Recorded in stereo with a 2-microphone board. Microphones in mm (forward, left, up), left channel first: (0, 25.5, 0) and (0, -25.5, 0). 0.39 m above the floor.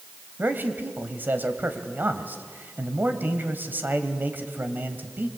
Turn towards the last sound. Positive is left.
turn(degrees=-40)  # may be behind; listen again after turning